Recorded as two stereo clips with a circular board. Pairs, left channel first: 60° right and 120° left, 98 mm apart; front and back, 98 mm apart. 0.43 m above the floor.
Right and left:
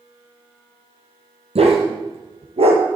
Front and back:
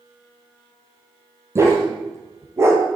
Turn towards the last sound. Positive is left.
turn(degrees=120)